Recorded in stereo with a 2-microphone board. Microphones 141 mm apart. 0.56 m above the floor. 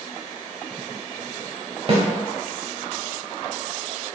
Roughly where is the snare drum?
Right.